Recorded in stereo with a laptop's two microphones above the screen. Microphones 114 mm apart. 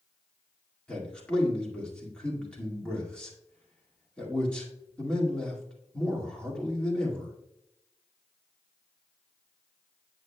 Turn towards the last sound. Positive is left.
turn(degrees=10)  # may be behind; listen again after turning